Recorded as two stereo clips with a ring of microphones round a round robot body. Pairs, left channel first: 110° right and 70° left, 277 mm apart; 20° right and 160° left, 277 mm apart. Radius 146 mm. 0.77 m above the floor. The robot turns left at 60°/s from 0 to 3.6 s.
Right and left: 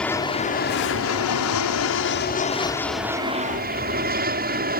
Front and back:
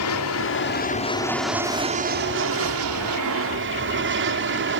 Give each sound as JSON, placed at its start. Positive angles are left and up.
{"t": 0.0, "sound": "an aircraft", "azimuth_deg": -25}